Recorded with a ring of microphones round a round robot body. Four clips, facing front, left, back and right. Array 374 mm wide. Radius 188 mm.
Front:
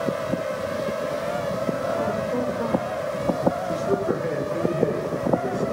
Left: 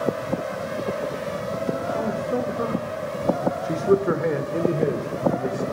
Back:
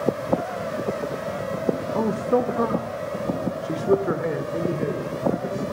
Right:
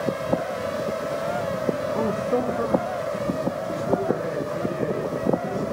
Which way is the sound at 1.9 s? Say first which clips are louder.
Right 1 dB, back 3 dB; 155° right.